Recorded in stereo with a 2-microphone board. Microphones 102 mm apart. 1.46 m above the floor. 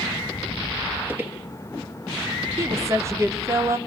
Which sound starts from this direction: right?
A woman speaking, at 2.6 s.